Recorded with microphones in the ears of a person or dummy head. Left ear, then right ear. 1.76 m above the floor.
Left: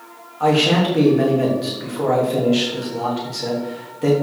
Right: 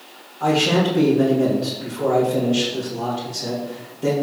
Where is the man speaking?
55° left (ahead or behind), 3 m.